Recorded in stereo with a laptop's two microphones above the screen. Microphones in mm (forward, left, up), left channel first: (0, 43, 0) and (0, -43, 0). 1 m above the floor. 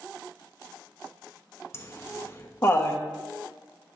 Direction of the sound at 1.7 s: 30° left (ahead or behind).